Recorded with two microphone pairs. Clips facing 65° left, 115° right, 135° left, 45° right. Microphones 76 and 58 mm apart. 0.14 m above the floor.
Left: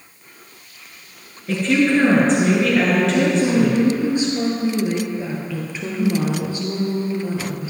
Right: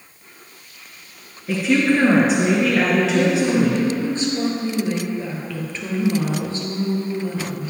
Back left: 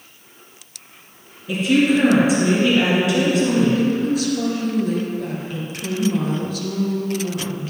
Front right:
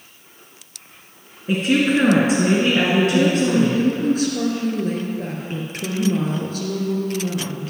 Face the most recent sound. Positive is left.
turn(degrees=-5)